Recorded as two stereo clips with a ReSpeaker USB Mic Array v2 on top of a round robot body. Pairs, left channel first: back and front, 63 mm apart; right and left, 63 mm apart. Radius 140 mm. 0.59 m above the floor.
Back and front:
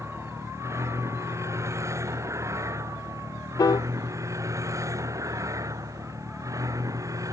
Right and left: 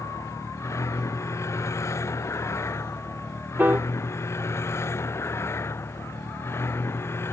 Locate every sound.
0.0 s a vehicle: 45° right; by 7.3 s 35° right
3.6 s a piano: 155° left